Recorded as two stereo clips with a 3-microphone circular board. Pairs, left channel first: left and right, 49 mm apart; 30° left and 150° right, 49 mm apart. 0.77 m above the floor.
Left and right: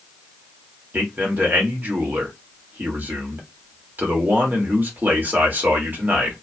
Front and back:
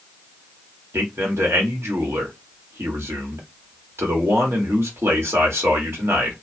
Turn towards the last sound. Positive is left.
turn(degrees=-135)